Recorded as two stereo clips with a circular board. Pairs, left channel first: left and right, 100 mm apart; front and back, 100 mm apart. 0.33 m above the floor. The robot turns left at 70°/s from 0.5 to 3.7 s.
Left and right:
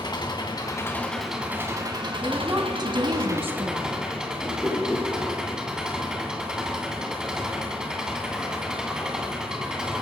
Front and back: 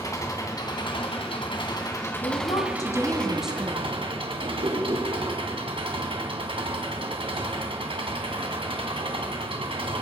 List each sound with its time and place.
0.0 s an engine running: 50° left, 2.5 m; by 10.0 s 175° right, 2.5 m
2.2 s a woman speaking: 10° right, 2 m; by 4.0 s 115° right, 2 m
4.4 s a whoosh: 175° left, 4.5 m